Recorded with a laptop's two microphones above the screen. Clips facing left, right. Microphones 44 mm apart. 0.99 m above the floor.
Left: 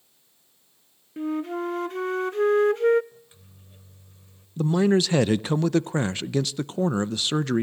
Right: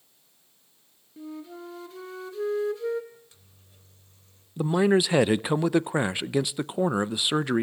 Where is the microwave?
20° left (ahead or behind), 3.5 m.